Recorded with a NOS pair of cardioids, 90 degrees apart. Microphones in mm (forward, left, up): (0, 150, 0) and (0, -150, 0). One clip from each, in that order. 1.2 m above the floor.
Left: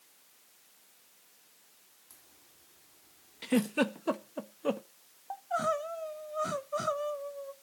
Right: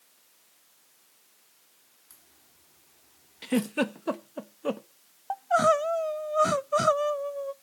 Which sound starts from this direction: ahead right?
Crying, at 5.3 s.